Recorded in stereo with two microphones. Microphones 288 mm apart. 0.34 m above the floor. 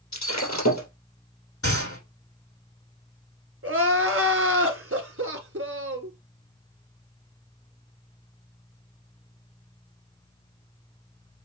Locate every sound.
0.1 s breaking glass: 70° left (ahead or behind), 3 m
1.6 s a gunshot: 80° left, 5.5 m
3.6 s crying: 50° right (ahead or behind), 1.1 m